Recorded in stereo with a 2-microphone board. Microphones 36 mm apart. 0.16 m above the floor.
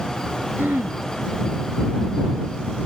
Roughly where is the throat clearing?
Right.